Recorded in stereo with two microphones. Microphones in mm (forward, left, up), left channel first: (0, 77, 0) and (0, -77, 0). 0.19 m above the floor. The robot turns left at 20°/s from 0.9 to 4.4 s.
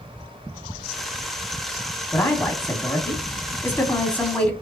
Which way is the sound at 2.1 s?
20° left (ahead or behind).